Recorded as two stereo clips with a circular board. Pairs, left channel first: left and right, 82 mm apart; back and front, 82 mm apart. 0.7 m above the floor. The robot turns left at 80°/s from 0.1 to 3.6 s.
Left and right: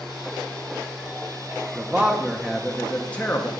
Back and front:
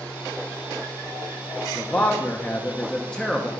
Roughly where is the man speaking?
Behind right.